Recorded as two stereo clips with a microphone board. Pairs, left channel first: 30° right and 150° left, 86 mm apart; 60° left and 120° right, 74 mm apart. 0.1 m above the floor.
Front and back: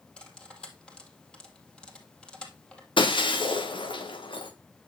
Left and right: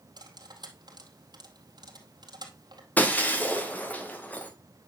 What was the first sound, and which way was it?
Cutlery clinking, 110° right.